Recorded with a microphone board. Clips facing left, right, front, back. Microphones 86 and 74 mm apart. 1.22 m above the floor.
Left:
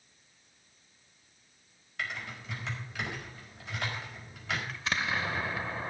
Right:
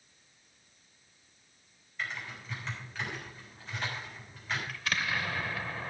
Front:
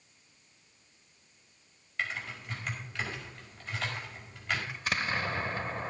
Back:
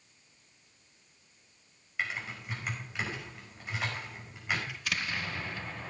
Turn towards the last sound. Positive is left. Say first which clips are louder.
# left 1 dB, front 3 dB
turn(degrees=30)